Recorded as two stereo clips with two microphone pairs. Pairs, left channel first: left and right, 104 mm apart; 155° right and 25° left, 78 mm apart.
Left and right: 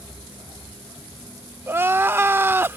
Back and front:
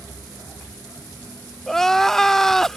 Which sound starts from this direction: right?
Crying, at 1.7 s.